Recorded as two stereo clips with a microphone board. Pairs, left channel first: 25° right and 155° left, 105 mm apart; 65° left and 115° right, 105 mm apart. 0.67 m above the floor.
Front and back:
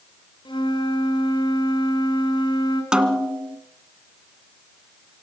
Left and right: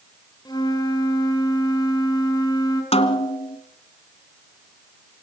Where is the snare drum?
75° left, 1.8 m.